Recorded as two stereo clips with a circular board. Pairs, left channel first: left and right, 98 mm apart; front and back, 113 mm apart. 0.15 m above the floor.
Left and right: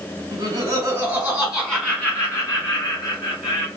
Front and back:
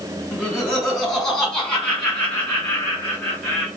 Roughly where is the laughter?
Right.